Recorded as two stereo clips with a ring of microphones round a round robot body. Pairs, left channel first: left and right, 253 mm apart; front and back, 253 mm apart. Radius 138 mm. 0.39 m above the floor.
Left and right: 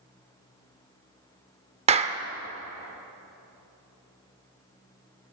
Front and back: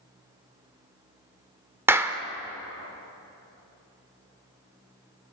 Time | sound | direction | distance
1.9 | a clap | 110° right | 0.7 m